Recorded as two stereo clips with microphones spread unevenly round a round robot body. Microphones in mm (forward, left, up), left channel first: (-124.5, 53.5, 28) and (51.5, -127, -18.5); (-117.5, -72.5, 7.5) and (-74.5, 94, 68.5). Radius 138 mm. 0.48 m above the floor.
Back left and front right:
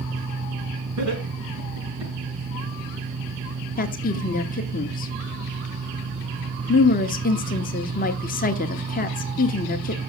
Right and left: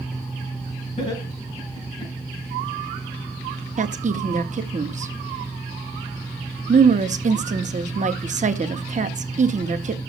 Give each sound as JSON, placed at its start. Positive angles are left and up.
{"t": 1.0, "sound": "laughter", "azimuth_deg": -50, "distance_m": 5.0}
{"t": 3.8, "sound": "a woman speaking", "azimuth_deg": 105, "distance_m": 1.0}